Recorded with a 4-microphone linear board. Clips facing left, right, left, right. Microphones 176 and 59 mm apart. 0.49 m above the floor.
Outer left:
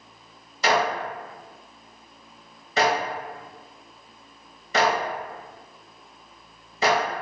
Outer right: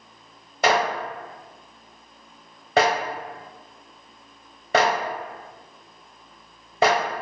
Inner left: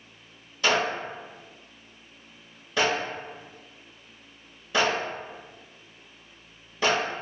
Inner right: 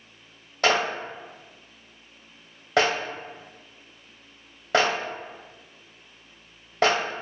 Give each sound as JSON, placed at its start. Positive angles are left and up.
{"t": 0.6, "sound": "a clap", "side_deg": -60, "distance_m": 0.9}